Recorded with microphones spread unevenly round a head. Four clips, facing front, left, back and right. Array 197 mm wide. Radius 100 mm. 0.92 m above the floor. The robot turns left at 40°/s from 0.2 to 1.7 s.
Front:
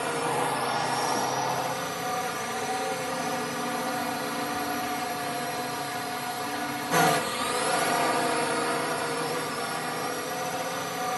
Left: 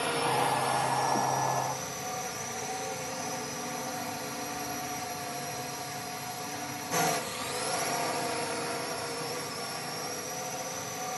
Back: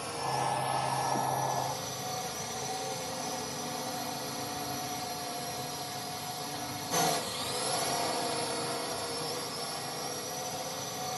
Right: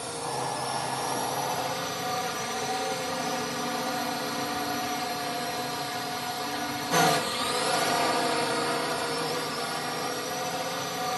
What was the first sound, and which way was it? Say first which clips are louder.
A drone: left 4 dB, front 5 dB; 25° left.